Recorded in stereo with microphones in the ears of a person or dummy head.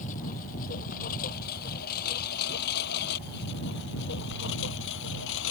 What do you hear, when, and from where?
0.0 s a lawn mower: 45° left (ahead or behind); by 5.5 s 70° left (ahead or behind)